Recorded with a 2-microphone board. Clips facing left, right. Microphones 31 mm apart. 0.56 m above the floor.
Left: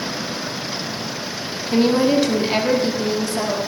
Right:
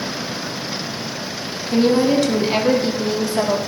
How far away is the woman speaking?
About 1.4 m.